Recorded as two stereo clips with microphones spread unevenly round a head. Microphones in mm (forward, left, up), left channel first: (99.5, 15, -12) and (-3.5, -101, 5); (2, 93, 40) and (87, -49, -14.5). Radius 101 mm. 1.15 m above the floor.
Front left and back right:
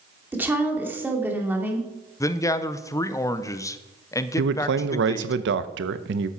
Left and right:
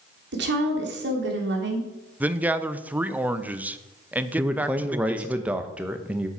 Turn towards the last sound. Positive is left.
turn(degrees=-140)